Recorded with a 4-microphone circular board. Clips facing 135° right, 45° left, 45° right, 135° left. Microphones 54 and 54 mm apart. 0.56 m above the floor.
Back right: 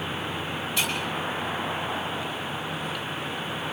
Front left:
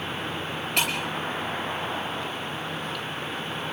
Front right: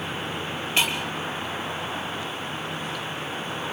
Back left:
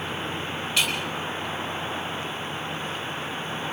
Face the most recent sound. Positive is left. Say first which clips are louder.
# front left 2 dB, front right 2 dB
turn(degrees=15)